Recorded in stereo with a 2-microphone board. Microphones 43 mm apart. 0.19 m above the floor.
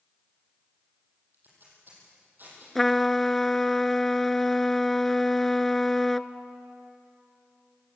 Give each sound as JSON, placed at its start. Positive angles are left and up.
{"t": 1.3, "sound": "tape being pulled", "side_deg": -45, "distance_m": 7.5}
{"t": 2.8, "sound": "a trumpet", "side_deg": 10, "distance_m": 0.6}